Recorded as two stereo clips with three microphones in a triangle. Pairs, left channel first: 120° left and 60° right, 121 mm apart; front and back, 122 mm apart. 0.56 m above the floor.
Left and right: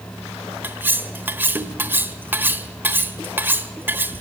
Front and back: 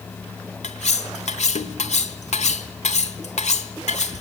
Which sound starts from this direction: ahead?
Cutlery clinking, at 0.6 s.